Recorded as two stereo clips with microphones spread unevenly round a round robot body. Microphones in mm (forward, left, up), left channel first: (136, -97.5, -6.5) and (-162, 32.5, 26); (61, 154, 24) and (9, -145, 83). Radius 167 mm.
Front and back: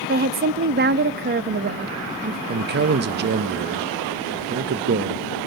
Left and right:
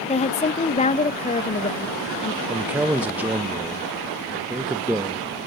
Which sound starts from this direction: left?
A woman speaking, at 0.1 s.